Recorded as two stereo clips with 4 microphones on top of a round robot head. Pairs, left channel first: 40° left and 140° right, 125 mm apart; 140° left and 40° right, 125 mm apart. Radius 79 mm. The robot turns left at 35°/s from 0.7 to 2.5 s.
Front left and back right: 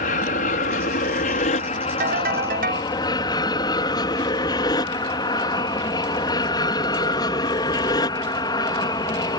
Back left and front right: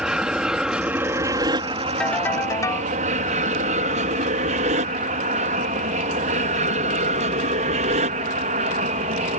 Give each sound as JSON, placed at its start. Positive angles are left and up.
{"t": 0.0, "sound": "an aircraft", "azimuth_deg": 45}
{"t": 2.0, "sound": "a ringtone", "azimuth_deg": -135}